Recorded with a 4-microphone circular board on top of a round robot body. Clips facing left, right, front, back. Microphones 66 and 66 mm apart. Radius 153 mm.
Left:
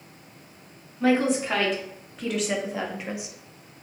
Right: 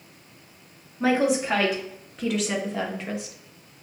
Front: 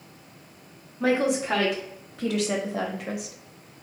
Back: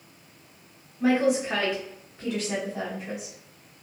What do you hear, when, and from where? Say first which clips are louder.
1.0 s a woman speaking: even, back 1 dB; 10° right, 2.5 m; by 3.8 s 35° left, 1.1 m